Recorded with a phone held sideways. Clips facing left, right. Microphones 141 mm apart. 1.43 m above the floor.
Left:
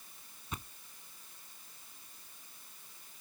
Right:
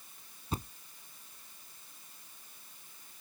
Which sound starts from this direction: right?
A thud, at 0.5 s.